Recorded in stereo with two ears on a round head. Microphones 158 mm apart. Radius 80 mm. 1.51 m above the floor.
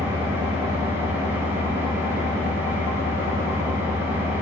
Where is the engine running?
15° right (ahead or behind), 1.4 m.